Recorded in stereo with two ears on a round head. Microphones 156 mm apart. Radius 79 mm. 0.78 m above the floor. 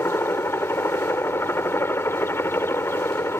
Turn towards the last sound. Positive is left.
turn(degrees=15)  # may be behind; listen again after turning